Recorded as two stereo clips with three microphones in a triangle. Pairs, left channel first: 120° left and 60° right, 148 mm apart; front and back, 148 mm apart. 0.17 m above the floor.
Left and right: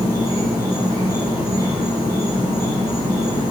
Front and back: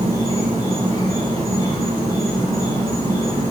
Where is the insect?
30° right, 1.0 m.